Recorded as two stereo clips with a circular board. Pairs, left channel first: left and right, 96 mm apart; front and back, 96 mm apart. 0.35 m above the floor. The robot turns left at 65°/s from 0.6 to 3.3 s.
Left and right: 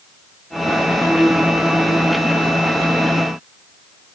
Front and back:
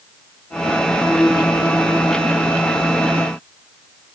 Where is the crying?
No crying in this recording.